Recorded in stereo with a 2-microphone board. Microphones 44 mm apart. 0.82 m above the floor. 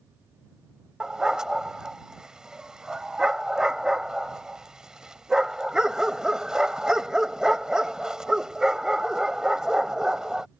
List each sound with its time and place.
1.0 s a dog barking: 15° right (ahead or behind)